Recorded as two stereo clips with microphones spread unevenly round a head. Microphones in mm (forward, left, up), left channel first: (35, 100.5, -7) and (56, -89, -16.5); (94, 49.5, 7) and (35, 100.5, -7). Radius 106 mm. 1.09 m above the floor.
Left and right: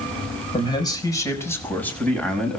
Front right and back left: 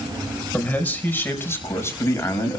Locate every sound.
0.5 s a man speaking: 30° left, 4.5 m; by 2.6 s 10° left, 6 m